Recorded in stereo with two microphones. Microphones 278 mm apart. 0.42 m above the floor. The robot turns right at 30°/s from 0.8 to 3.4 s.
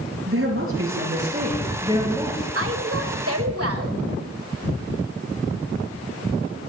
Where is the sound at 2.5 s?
50° right (ahead or behind), 1.9 m; by 4.0 s 55° right (ahead or behind), 1.9 m.